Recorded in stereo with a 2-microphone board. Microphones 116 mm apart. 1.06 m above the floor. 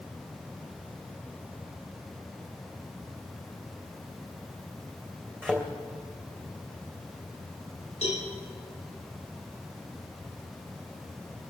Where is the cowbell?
80° left, 6 m.